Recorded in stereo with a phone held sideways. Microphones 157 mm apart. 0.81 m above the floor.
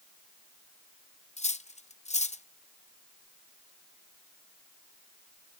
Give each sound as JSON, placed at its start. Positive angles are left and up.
{"t": 1.4, "sound": "cutlery clinking", "side_deg": 45, "distance_m": 0.6}